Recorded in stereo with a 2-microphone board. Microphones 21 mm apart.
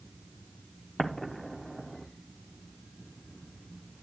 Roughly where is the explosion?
Centre.